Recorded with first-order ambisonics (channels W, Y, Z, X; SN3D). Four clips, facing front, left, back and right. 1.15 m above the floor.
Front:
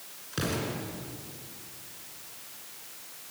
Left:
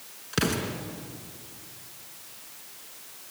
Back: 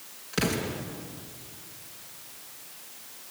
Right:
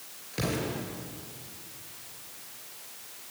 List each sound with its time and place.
0.3 s an explosion: 100° left, 3 m